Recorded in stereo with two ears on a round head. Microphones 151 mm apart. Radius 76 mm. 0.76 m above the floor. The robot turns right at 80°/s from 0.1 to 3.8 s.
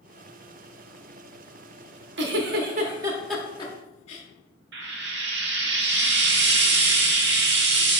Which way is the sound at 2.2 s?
70° right (ahead or behind).